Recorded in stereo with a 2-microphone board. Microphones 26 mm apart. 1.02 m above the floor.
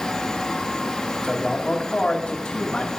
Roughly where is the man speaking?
Left.